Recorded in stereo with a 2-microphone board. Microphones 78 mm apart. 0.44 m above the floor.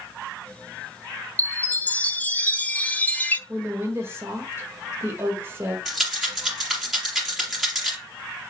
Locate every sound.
1.4 s a chime: 20° left (ahead or behind), 0.6 m
3.5 s a woman speaking: 30° right (ahead or behind), 1.6 m
5.8 s a rattle: centre (ahead or behind), 4 m